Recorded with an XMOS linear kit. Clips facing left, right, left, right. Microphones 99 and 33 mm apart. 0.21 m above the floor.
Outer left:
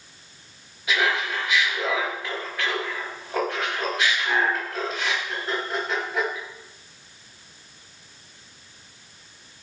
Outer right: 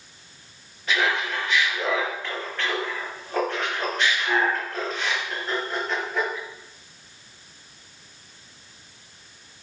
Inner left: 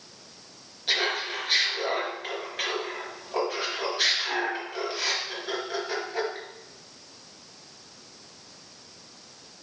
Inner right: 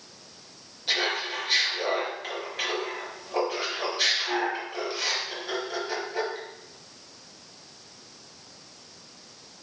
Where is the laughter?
5° left (ahead or behind), 4 m.